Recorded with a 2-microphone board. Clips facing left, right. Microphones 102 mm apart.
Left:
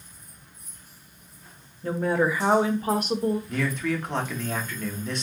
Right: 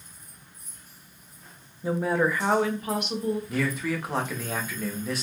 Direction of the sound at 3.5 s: 5° right (ahead or behind).